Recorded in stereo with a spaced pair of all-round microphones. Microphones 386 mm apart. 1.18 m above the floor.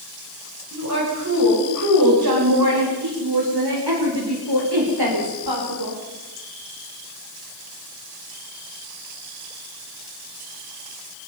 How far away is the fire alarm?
I don't hear a fire alarm.